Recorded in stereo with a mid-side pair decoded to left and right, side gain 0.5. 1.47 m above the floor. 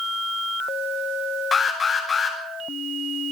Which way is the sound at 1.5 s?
35° left.